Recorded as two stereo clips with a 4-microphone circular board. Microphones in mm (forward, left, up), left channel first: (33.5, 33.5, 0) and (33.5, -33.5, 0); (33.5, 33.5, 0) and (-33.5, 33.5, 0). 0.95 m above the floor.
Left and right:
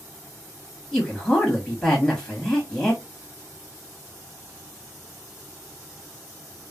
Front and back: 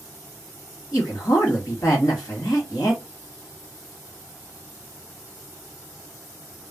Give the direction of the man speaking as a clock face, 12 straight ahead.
12 o'clock.